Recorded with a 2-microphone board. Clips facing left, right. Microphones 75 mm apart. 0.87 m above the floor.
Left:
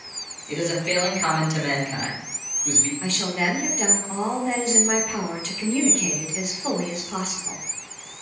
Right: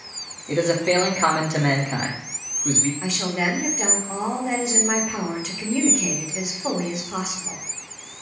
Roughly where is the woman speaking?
Centre.